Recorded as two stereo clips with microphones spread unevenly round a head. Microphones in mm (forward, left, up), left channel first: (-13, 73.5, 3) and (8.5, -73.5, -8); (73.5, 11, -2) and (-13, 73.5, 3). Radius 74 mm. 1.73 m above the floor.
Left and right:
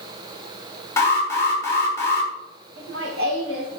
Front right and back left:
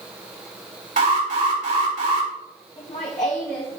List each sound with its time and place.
1.0 s an alarm: 170° left, 4.5 m
2.8 s laughter: 90° right, 3 m